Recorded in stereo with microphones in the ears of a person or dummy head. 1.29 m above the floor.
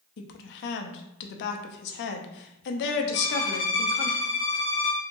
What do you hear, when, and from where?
0.2 s a woman speaking: 65° left (ahead or behind), 0.6 m
3.1 s a violin: 15° left (ahead or behind), 0.7 m